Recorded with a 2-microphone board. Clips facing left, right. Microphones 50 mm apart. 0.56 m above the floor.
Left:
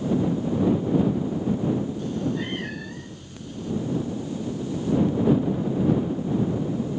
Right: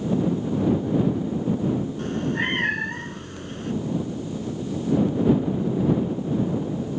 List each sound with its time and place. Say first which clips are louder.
2.0 s a cat meowing: right 2 dB; 55° right (ahead or behind)